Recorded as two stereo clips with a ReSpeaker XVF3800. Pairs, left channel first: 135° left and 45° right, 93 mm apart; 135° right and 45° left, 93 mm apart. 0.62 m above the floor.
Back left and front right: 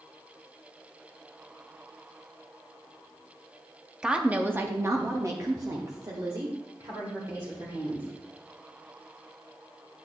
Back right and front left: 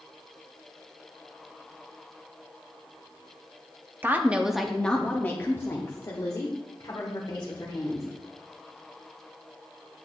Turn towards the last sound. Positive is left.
turn(degrees=-95)